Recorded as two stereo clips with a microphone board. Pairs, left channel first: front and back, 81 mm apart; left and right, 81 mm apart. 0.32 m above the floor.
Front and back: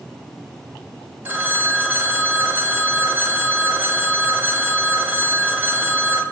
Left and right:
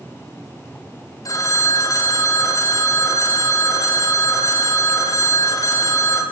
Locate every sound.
1.2 s a phone ringing: 120° left, 0.7 m